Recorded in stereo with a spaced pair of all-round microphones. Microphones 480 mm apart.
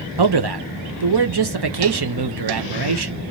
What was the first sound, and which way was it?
A man speaking, 55° right (ahead or behind).